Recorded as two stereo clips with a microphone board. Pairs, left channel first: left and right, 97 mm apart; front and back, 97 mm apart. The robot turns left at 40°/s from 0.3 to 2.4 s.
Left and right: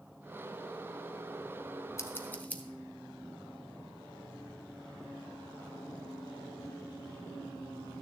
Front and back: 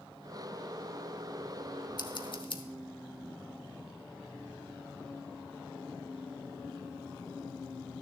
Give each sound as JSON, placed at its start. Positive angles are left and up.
{"t": 2.0, "sound": "scissors", "azimuth_deg": 35, "distance_m": 1.0}